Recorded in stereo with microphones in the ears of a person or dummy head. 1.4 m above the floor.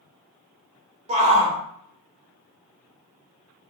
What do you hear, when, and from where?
1.1 s a shout: 35° right (ahead or behind), 1.3 m